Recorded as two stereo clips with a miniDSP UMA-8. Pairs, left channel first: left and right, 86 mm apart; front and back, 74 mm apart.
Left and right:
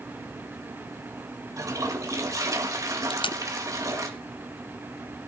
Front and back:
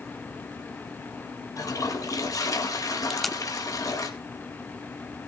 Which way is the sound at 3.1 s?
90° left.